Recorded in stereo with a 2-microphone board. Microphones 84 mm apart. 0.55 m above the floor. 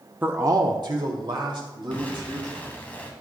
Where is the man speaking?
20° right (ahead or behind), 0.6 m; by 2.7 s 65° right (ahead or behind), 3.5 m.